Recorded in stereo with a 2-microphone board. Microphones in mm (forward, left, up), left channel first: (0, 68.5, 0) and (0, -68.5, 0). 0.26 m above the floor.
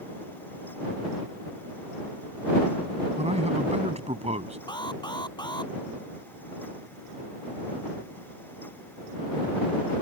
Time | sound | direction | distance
3.2 | a man speaking | 55° right (ahead or behind) | ?
4.7 | an alarm | 35° left (ahead or behind) | ?